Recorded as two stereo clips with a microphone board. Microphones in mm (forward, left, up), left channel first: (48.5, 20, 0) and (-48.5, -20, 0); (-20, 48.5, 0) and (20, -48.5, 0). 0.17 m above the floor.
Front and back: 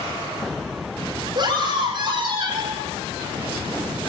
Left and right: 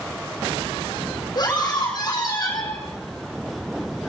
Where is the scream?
160° left, 8 m; by 2.8 s 165° left, 9 m.